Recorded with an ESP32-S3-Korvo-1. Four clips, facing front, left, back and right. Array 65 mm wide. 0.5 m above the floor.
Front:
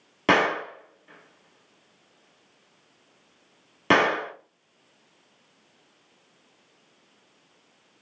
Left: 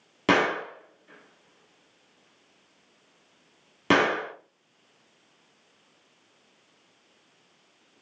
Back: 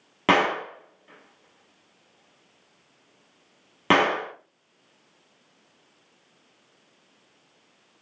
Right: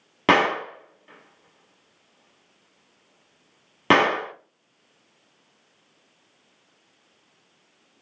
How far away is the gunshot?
About 0.9 m.